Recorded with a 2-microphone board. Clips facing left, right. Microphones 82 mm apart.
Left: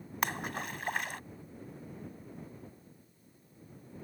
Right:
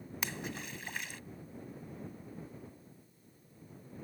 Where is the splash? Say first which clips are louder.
Left 7 dB; 55° left (ahead or behind).